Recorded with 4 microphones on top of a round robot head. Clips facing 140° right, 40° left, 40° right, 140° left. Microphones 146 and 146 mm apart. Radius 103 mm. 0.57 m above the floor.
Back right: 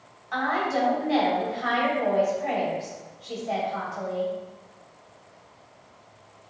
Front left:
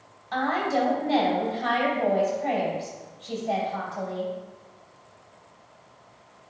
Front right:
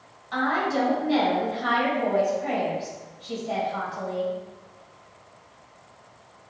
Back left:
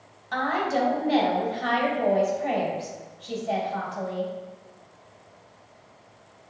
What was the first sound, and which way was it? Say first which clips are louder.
A woman speaking: front left 1 dB, front right 1 dB; 105° left.